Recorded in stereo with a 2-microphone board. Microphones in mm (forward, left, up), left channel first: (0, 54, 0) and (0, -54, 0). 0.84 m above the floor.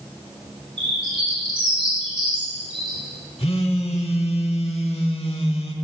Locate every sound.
0.8 s a bird: 45° right (ahead or behind), 4.5 m
3.4 s a phone buzzing: 60° left (ahead or behind), 1.0 m